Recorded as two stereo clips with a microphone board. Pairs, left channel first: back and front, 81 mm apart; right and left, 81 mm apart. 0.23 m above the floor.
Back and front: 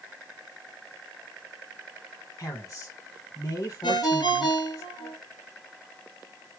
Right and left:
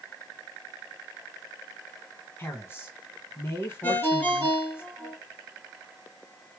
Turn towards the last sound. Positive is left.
turn(degrees=-155)